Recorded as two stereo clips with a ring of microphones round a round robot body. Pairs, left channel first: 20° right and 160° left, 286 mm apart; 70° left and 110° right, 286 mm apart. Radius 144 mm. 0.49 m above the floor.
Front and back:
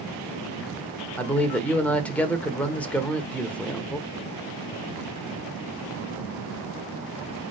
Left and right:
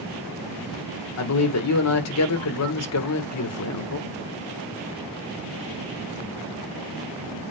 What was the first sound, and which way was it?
A man speaking, 60° left.